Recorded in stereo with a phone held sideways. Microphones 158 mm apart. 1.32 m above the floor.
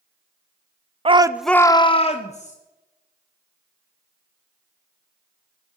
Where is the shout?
35° right (ahead or behind), 0.6 m; by 2.5 s 45° left (ahead or behind), 1.3 m.